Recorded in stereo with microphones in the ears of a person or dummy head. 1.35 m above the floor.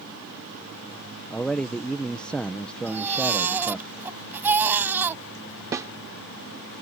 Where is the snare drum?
15° right (ahead or behind).